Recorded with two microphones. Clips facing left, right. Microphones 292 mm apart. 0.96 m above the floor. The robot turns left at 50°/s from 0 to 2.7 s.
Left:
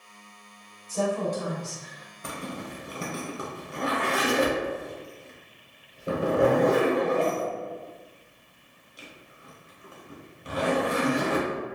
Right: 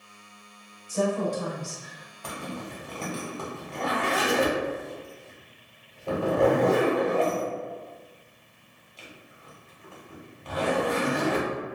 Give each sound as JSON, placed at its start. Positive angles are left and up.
{"t": 0.9, "sound": "a woman speaking", "azimuth_deg": -15, "distance_m": 1.6}
{"t": 2.2, "sound": "a zipper", "side_deg": 25, "distance_m": 0.8}